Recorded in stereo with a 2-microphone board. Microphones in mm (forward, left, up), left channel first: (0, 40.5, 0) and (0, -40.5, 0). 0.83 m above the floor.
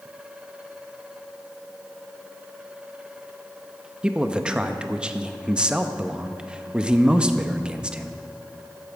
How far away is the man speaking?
About 0.7 m.